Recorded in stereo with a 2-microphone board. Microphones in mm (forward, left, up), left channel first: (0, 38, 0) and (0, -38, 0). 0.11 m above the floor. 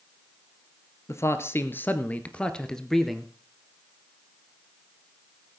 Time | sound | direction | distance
1.1 | a man speaking | 40° left (ahead or behind) | 1.5 m